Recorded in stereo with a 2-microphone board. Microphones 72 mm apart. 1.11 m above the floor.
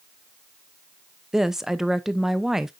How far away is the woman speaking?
About 0.6 m.